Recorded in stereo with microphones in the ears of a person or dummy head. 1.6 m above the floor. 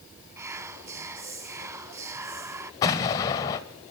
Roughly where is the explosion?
Left.